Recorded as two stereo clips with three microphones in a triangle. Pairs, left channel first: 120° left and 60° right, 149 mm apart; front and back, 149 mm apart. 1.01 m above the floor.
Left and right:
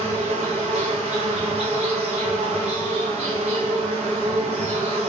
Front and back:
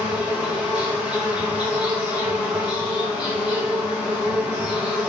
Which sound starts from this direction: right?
An insect, at 0.0 s.